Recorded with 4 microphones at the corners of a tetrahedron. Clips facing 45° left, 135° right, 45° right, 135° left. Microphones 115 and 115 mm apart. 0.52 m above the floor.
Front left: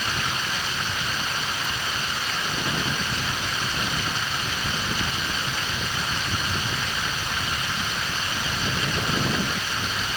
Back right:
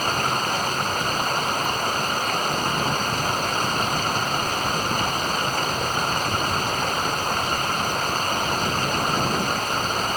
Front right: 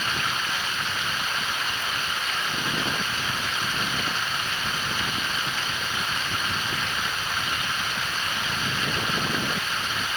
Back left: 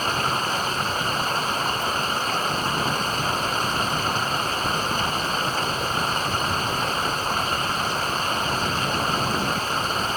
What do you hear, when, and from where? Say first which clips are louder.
0.0 s running water: back right 6 dB, back left 5 dB; 175° right